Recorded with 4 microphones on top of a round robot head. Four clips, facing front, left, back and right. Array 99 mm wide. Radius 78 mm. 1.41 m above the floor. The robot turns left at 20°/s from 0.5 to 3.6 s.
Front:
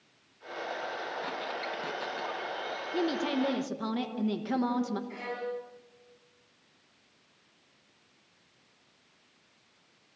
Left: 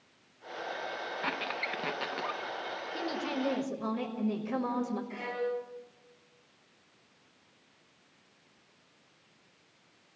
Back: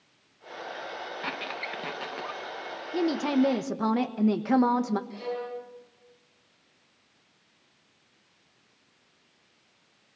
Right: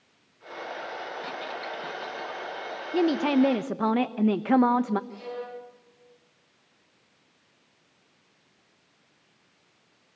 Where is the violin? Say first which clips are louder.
Left 2 dB, back 2 dB; 55° left, 4 m.